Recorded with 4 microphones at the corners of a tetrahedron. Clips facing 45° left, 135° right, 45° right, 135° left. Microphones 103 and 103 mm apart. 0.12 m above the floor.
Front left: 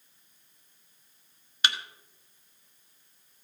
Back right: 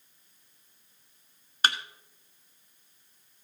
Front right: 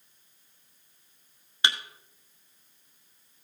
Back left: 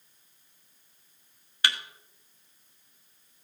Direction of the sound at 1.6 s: 105° right.